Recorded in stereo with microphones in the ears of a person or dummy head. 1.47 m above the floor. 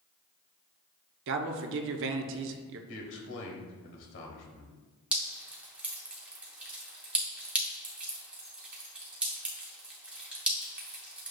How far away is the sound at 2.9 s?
About 1.3 m.